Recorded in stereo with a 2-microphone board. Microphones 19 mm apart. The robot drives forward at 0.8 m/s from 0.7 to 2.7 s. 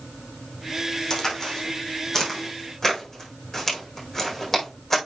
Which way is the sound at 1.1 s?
25° left (ahead or behind).